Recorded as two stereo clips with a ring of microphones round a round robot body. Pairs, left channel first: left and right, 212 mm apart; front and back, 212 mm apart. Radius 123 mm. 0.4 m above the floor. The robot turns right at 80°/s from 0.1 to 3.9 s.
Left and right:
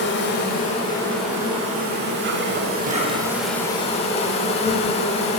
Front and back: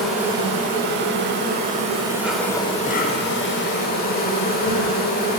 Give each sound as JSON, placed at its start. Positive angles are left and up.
{"t": 0.0, "sound": "an insect", "azimuth_deg": 90, "distance_m": 0.9}